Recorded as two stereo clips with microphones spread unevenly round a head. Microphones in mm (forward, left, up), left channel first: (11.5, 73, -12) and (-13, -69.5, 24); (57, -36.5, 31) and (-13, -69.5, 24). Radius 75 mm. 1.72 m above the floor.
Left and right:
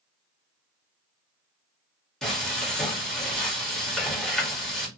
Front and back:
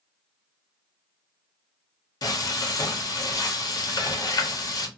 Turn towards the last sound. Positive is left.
turn(degrees=-10)